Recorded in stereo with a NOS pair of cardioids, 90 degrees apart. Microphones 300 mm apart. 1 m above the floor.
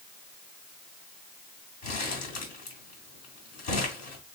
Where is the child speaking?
I don't hear a child speaking.